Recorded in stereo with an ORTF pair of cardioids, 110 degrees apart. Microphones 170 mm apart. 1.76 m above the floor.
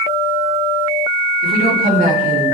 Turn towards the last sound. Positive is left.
turn(degrees=-60)